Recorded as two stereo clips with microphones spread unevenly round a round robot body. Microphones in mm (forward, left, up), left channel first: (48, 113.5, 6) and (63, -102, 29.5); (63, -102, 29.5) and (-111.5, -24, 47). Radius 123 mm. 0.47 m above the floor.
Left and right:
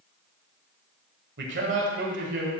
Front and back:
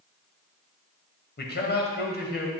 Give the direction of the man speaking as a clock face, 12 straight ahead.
2 o'clock.